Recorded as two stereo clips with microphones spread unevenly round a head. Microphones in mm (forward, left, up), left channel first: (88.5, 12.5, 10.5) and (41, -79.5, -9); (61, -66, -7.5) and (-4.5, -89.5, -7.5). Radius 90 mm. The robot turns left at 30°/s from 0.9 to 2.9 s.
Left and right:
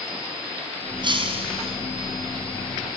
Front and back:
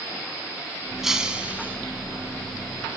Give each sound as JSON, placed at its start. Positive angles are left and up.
{"t": 1.0, "sound": "breaking glass", "azimuth_deg": -75, "distance_m": 5.5}